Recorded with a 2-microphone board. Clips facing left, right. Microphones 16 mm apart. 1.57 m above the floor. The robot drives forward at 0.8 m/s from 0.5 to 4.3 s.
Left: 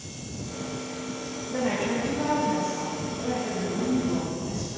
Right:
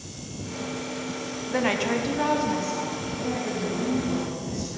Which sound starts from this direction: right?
A woman speaking, at 1.5 s.